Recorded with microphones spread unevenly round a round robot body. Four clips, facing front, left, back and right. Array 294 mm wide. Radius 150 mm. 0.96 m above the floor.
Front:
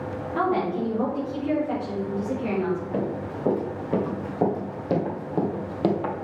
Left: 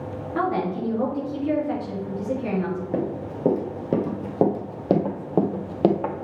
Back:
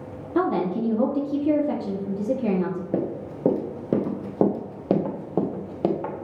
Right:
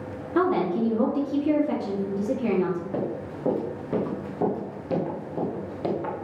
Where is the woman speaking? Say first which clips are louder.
Right 2 dB, back 2 dB; 155° right, 2.0 m.